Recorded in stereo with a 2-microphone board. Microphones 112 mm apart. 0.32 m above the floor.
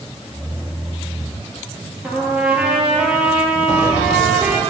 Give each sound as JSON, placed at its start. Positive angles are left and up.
{"t": 2.0, "sound": "a trumpet", "side_deg": -10, "distance_m": 3.5}